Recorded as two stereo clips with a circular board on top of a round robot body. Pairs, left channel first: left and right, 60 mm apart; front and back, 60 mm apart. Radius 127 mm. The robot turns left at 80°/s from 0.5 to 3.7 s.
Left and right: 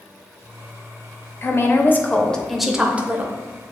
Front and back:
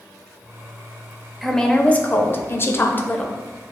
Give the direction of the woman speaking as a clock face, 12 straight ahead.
9 o'clock.